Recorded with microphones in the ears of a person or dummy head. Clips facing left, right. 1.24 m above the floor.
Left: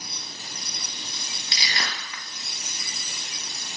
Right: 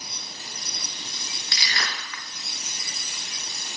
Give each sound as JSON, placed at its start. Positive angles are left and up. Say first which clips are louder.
{"t": 1.5, "sound": "crushing", "louder": "left 1 dB", "side_deg": 20, "distance_m": 0.6}